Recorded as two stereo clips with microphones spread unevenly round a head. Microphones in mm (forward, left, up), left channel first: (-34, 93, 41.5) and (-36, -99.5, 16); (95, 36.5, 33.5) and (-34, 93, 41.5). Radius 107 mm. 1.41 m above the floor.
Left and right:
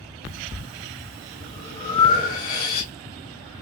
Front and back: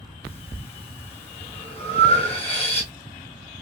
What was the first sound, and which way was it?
Breathing, 50° left.